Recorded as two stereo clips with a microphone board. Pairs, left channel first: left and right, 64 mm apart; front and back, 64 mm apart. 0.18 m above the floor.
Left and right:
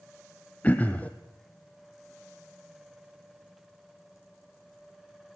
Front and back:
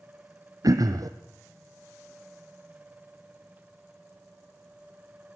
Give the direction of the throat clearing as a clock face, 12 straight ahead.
7 o'clock.